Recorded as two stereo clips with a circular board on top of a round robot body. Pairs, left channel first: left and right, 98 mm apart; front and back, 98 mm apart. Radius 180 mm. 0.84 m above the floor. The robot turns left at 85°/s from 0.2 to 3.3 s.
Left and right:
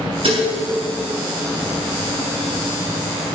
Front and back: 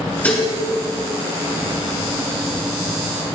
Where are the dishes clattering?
75° right, 8 m; by 0.5 s 95° right, 8 m.